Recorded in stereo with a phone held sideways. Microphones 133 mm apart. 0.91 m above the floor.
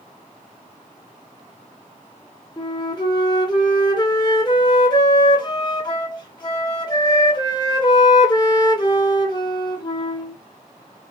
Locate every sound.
2.6 s a flute: 30° left (ahead or behind), 0.6 m